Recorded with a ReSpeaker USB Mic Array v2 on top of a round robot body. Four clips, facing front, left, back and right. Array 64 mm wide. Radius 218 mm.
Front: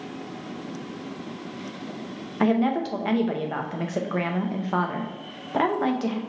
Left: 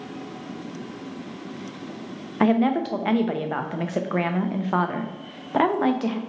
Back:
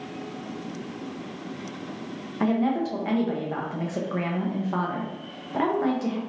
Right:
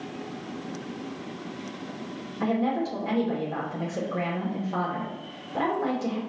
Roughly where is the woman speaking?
Left.